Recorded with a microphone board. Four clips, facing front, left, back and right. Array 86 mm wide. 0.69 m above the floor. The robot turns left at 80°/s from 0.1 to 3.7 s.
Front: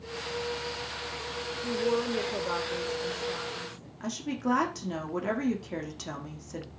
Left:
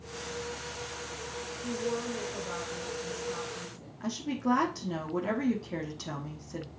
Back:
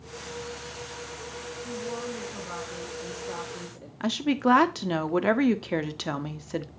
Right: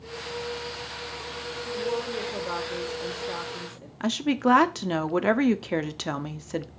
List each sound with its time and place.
1.6 s a woman speaking: 20° left, 2 m; by 3.9 s 145° right, 2 m
4.0 s a woman speaking: 130° right, 1.1 m